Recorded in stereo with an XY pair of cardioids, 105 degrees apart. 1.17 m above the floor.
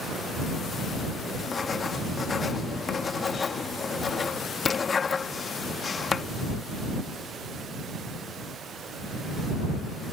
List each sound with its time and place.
1.4 s writing: 35° left